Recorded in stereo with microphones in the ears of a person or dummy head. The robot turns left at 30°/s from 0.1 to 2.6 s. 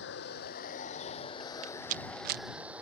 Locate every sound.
0.0 s running water: 70° left; by 2.8 s 5° right
1.6 s a rattle: 40° right (ahead or behind); by 2.4 s 60° right (ahead or behind)